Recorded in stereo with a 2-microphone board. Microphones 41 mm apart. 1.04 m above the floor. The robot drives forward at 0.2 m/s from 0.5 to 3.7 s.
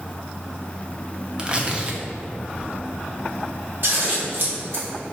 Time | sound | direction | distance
1.4 | tearing paper | 25° right (ahead or behind) | 0.5 m
3.8 | scissors | 50° right (ahead or behind) | 1.4 m